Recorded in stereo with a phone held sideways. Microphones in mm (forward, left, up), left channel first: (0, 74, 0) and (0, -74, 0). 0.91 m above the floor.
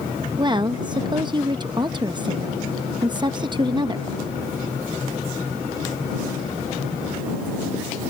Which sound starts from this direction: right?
A woman speaking, at 0.4 s.